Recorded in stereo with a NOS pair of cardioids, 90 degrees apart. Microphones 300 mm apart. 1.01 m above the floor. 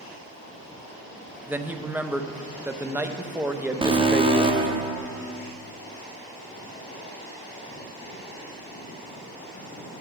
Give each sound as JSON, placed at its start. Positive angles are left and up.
{"t": 1.5, "sound": "a man speaking", "azimuth_deg": -5, "distance_m": 0.5}
{"t": 3.8, "sound": "an alarm", "azimuth_deg": -15, "distance_m": 0.9}